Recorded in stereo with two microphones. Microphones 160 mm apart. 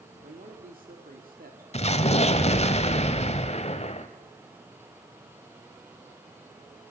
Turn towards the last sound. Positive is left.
turn(degrees=40)  # may be behind; listen again after turning